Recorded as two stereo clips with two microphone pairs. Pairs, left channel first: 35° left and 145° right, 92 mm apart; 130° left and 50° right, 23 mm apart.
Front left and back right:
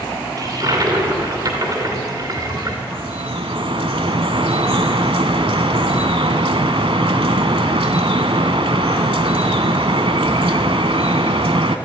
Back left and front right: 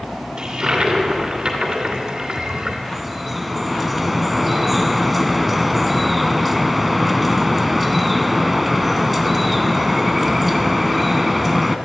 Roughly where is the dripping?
Behind right.